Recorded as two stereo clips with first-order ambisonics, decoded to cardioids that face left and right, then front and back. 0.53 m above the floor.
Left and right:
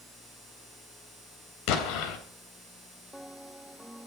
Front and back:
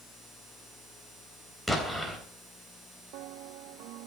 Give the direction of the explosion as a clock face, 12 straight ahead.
9 o'clock.